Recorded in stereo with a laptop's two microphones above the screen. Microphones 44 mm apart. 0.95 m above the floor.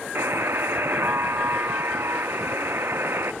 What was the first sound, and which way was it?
A buzzer, 65° right (ahead or behind).